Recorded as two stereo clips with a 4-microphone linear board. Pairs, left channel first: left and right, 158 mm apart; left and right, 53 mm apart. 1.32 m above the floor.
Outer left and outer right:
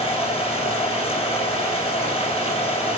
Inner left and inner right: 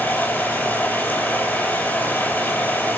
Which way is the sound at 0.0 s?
40° left (ahead or behind).